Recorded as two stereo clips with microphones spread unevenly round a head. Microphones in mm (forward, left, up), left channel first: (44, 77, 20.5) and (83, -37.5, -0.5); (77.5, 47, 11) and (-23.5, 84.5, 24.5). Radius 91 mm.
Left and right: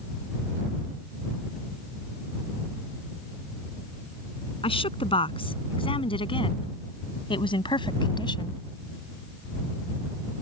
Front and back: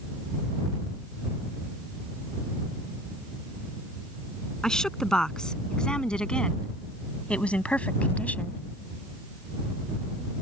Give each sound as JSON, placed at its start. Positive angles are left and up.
{"t": 4.6, "sound": "a woman speaking", "azimuth_deg": 65}